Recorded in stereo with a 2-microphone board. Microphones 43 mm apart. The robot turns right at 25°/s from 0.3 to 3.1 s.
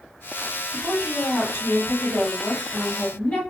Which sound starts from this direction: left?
A woman speaking, at 0.7 s.